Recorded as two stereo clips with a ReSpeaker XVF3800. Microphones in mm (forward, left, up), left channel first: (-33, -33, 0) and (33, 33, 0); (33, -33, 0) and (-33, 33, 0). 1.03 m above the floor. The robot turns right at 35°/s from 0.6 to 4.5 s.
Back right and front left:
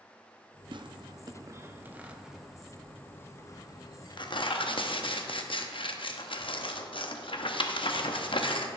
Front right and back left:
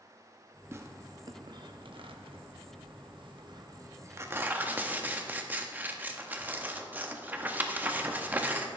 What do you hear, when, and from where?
0.7 s tearing paper: 75° left, 0.7 m; by 8.7 s 155° right, 0.7 m